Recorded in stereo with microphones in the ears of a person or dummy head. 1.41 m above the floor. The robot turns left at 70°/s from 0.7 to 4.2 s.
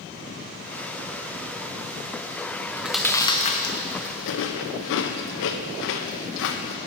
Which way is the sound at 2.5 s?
30° right (ahead or behind).